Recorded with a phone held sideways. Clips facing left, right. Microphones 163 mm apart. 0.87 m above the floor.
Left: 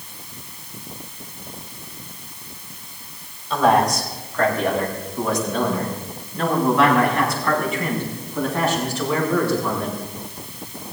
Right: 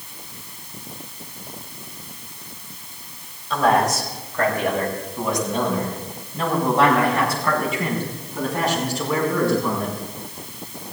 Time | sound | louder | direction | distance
3.5 | a man speaking | left 1 dB | centre (ahead or behind) | 3.5 m